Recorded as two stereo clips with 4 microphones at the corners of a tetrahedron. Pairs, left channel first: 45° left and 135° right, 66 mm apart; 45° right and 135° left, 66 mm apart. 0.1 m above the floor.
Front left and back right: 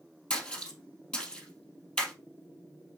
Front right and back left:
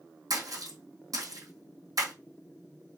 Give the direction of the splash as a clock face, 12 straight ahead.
8 o'clock.